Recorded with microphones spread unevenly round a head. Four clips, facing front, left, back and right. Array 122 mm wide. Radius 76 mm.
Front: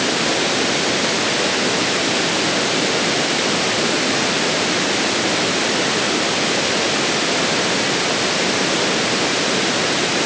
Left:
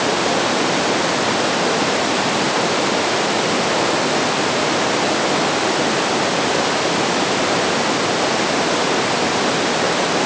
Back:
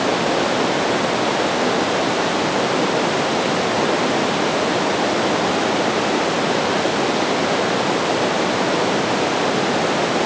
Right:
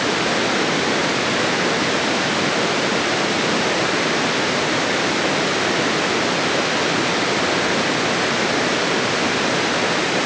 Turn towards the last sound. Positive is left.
No sound to turn to.